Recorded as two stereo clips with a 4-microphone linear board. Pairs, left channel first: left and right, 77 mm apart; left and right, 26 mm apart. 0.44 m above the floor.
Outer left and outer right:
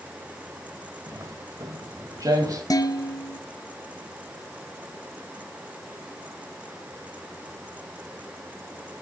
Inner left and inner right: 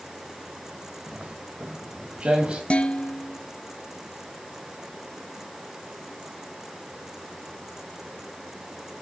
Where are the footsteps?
45° right (ahead or behind), 4 m; by 2.6 s 50° right (ahead or behind), 6 m.